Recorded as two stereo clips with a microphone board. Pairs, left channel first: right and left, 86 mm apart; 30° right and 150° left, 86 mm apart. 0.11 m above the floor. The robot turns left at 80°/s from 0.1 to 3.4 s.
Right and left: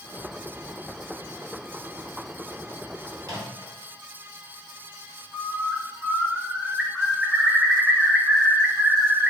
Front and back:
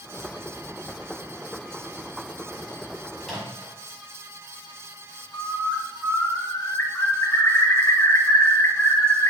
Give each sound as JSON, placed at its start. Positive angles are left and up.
{"t": 3.2, "sound": "a microwave", "azimuth_deg": 65, "distance_m": 1.8}
{"t": 5.3, "sound": "a bird", "azimuth_deg": 15, "distance_m": 0.7}